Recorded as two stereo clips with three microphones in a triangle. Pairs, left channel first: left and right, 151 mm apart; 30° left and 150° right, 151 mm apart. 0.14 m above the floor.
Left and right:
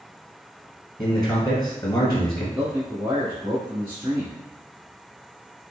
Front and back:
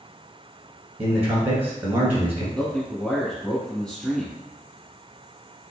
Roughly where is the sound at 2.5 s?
Ahead right.